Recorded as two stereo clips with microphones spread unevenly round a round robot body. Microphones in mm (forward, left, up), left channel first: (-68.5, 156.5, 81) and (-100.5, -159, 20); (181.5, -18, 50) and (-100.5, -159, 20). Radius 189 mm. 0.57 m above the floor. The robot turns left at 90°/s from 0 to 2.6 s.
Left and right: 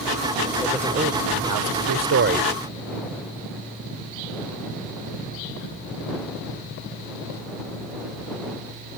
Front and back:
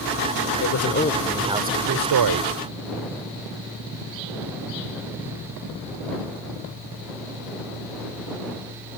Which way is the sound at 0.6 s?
5° left.